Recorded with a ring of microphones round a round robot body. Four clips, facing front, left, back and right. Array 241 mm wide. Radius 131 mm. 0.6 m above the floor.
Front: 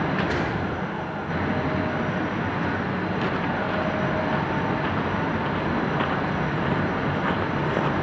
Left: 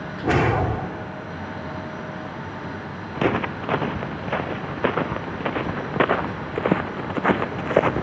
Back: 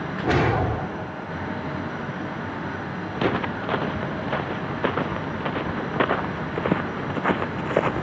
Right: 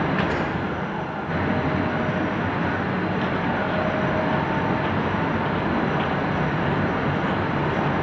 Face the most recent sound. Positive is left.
turn(degrees=105)